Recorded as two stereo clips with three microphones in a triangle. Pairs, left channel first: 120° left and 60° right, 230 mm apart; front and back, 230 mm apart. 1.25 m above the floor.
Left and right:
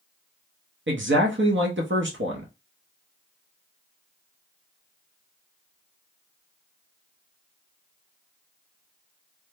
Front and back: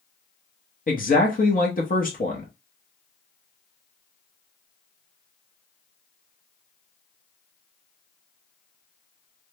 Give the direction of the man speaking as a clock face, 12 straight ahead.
1 o'clock.